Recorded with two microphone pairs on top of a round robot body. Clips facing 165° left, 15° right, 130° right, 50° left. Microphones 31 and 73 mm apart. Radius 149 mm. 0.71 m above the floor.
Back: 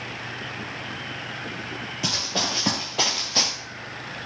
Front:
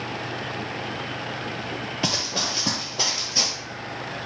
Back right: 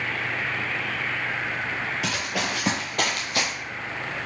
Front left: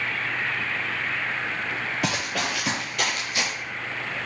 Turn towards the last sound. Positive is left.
turn(degrees=-175)